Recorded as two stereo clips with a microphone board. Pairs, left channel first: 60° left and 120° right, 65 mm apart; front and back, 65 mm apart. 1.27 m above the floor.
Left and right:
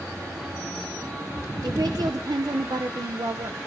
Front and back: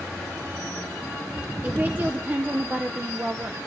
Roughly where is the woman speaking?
Behind right.